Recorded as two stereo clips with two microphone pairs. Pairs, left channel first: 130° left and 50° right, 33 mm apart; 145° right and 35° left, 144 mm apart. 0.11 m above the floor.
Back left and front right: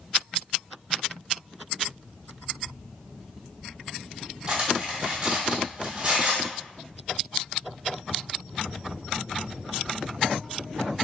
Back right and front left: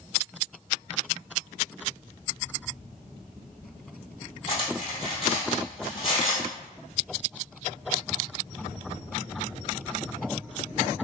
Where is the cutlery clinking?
100° right, 1.9 m.